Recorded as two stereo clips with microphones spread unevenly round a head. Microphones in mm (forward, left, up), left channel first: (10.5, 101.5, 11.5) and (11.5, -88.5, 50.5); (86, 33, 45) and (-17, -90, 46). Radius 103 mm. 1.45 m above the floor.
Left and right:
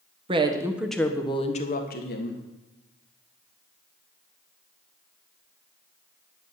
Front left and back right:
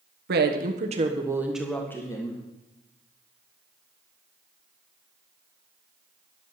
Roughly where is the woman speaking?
Behind right.